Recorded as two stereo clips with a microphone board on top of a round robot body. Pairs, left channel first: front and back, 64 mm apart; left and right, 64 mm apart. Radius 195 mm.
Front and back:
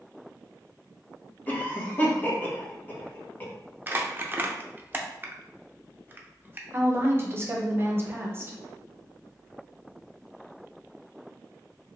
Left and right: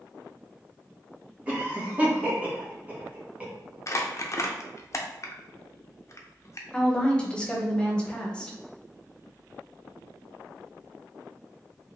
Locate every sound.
1.5 s a cough: 40° right, 1.5 m
3.9 s crumpling: 125° left, 0.6 m
6.7 s a woman speaking: 155° left, 1.1 m